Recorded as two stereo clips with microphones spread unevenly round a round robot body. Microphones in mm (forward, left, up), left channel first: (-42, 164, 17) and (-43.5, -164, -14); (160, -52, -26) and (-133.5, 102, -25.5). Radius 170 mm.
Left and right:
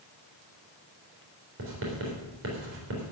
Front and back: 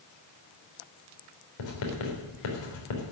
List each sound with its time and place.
1.6 s writing: 35° right, 3.5 m